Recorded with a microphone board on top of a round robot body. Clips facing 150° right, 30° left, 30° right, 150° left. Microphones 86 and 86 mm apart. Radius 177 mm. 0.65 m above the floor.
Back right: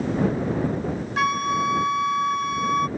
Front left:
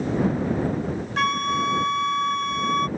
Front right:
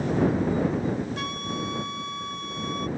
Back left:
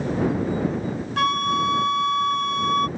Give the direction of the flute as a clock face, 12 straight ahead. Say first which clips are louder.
Back right 1 dB, back left 10 dB; 8 o'clock.